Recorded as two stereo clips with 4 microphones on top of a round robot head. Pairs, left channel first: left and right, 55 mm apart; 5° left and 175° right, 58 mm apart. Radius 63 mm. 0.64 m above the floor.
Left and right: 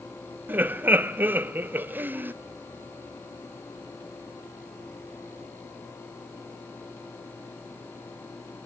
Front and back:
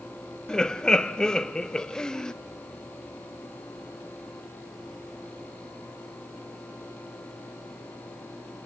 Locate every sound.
0.5 s laughter: 65° right, 0.6 m